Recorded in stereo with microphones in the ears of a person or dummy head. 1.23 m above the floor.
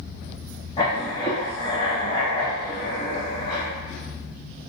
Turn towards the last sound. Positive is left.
turn(degrees=35)  # may be behind; listen again after turning